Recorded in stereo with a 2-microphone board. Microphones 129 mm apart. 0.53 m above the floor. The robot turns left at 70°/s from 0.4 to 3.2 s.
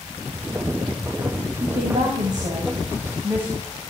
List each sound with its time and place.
1.6 s a woman speaking: 50° right, 3.5 m; by 3.5 s 160° right, 3.5 m